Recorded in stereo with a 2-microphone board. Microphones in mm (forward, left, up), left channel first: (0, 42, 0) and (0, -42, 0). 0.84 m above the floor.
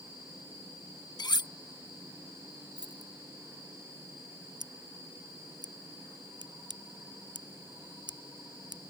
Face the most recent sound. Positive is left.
turn(degrees=-60)  # may be behind; listen again after turning